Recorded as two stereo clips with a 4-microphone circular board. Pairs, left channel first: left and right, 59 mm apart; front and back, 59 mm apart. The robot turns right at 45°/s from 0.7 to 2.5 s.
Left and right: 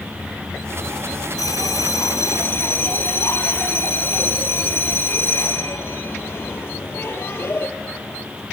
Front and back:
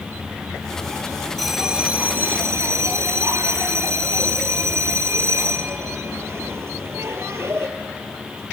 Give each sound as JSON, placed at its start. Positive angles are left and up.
{"t": 1.4, "sound": "a bell", "azimuth_deg": 85, "distance_m": 1.6}